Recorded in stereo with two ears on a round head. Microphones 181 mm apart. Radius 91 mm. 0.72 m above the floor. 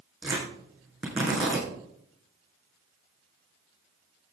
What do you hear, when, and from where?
0.2 s tearing paper: 5° right (ahead or behind), 6.5 m